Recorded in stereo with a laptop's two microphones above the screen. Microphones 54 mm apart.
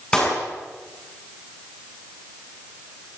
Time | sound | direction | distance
0.1 | a clap | 15° left (ahead or behind) | 7.5 m